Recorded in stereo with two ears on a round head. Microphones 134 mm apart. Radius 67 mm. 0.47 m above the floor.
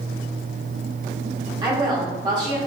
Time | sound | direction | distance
1.6 | a woman speaking | 30° right (ahead or behind) | 1.1 m